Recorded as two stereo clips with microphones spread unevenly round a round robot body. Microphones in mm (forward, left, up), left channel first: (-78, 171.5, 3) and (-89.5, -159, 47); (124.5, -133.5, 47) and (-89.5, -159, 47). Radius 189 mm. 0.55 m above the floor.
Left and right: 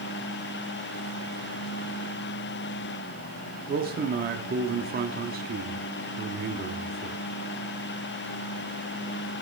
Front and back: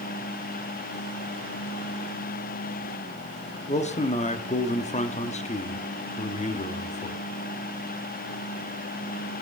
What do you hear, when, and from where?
3.7 s a man speaking: 35° right, 0.8 m